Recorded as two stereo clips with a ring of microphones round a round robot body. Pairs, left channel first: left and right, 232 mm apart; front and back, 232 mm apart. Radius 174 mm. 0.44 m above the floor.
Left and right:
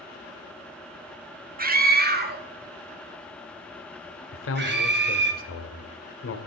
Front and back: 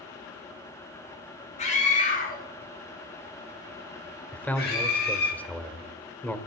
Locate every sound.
1.6 s a scream: 50° right, 1.5 m
4.3 s a man speaking: 85° left, 1.5 m